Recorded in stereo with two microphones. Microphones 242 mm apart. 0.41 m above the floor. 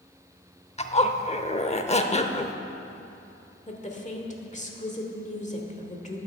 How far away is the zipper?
About 0.7 m.